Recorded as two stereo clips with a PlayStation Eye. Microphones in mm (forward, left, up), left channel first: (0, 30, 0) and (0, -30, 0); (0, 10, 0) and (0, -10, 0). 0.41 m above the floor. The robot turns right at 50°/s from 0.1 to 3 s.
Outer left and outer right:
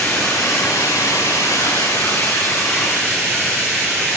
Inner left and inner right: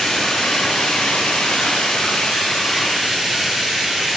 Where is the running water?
25° left, 3.5 m; by 4.2 s 170° left, 3.5 m.